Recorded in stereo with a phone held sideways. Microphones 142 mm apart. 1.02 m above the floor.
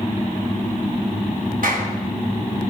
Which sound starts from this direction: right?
A clap, at 1.6 s.